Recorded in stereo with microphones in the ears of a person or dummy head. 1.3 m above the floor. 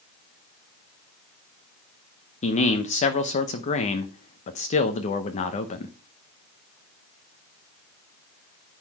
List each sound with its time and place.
2.4 s a man speaking: 35° left (ahead or behind), 0.8 m